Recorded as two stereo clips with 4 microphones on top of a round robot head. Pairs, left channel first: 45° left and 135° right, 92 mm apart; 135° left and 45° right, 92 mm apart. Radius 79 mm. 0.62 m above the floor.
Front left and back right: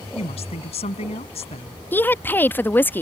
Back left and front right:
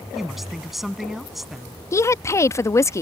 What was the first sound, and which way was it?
A woman speaking, 40° left.